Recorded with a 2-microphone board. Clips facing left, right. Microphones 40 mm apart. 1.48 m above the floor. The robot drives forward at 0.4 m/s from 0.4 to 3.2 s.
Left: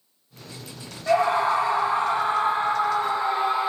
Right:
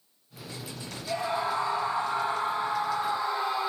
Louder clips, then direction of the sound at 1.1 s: Left 9 dB; 75° left (ahead or behind).